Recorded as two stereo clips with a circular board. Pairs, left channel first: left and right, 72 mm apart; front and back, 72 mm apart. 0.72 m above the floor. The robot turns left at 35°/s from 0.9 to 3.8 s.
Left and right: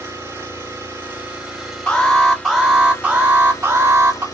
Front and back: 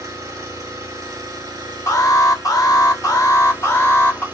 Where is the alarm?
20° left, 1.6 m; by 4.2 s 45° right, 1.6 m.